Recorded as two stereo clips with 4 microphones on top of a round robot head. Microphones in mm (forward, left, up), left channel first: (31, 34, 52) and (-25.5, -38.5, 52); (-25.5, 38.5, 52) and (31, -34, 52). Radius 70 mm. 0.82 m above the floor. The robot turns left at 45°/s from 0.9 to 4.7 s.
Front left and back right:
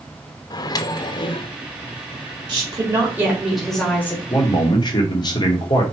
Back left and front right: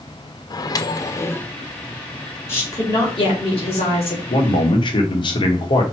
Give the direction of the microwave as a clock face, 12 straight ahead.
9 o'clock.